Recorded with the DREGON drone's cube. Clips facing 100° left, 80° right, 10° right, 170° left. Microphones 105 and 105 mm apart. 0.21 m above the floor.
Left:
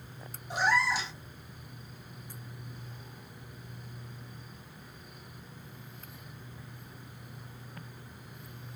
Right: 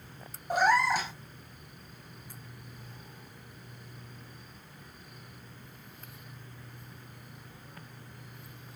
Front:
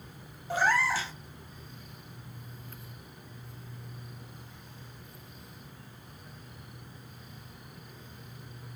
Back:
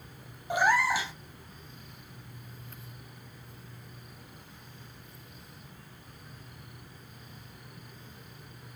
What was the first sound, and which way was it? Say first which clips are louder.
A cat meowing: right 4 dB, back 2 dB; 115° right.